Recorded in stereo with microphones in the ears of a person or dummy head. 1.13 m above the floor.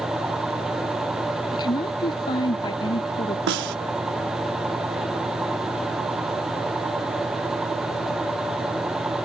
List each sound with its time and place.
1.5 s a woman speaking: 25° left (ahead or behind)
3.5 s a snare drum: 65° right (ahead or behind)